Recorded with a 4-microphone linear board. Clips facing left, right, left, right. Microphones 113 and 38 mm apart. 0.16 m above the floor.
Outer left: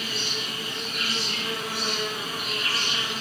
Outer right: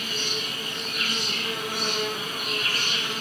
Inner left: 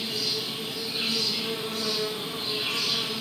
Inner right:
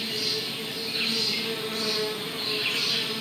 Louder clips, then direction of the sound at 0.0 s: Outer right 1 dB, even; 50° right (ahead or behind).